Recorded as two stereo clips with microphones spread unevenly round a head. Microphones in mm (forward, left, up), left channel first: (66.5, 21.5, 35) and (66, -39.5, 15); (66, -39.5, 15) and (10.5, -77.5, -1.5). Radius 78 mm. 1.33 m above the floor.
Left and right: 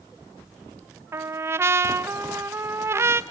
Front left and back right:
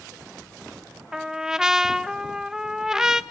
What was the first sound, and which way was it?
A trumpet, 70° right.